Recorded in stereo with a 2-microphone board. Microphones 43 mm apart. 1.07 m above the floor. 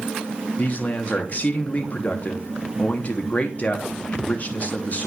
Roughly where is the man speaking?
Left.